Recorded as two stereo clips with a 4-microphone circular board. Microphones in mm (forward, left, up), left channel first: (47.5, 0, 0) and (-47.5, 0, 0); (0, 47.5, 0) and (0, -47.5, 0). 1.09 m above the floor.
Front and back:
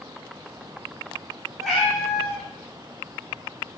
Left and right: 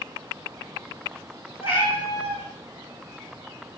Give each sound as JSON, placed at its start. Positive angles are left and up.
{"t": 1.6, "sound": "a cat meowing", "azimuth_deg": 90, "distance_m": 3.5}